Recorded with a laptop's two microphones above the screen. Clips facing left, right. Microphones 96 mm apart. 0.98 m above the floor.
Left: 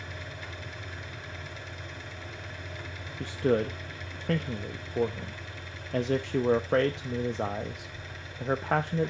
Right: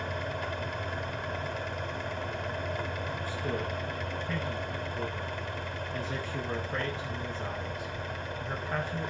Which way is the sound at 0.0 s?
50° right (ahead or behind).